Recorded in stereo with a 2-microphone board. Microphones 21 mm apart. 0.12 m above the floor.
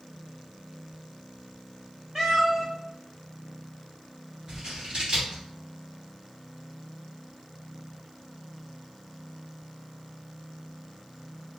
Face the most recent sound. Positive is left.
turn(degrees=-40)  # may be behind; listen again after turning